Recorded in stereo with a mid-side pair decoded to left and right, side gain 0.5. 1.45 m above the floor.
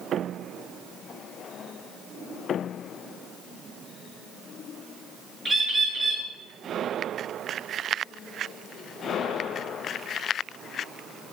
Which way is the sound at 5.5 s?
15° right.